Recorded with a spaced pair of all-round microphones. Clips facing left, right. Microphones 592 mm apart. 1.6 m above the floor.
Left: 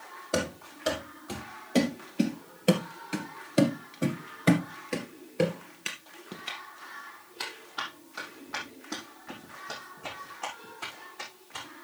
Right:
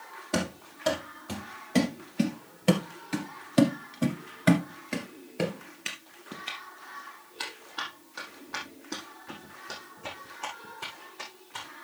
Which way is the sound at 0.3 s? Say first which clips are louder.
Even; 20° right (ahead or behind).